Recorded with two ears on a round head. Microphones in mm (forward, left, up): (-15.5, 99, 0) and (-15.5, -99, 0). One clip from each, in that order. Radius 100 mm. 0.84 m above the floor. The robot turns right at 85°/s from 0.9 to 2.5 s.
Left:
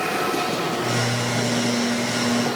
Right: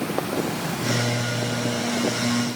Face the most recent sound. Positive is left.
No sound to turn to.